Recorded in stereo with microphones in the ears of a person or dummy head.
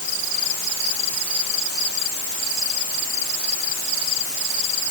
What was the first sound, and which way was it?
Only background noise.